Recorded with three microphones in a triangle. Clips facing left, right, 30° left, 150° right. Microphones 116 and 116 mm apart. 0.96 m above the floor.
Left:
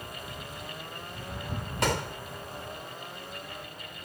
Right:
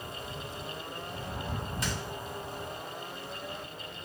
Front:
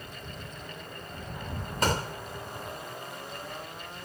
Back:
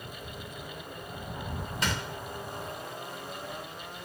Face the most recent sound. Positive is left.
turn(degrees=75)